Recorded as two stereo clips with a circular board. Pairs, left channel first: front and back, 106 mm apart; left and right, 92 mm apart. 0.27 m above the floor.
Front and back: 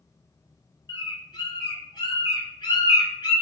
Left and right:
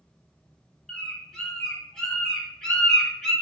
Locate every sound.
0.9 s a bird: 10° left, 0.9 m